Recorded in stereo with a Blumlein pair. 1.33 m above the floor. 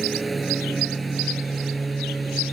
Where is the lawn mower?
10° right.